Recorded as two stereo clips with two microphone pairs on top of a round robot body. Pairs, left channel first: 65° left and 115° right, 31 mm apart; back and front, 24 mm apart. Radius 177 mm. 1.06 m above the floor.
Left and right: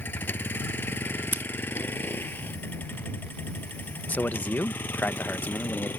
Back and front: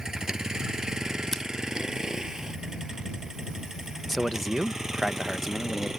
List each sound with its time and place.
0.0 s a vehicle: 65° left; by 6.0 s 75° left
1.3 s scissors: 105° right
4.1 s a man speaking: 85° left